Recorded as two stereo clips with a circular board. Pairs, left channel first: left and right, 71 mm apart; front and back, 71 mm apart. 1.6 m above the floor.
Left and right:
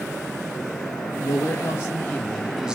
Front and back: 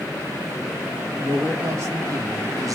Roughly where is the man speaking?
Behind left.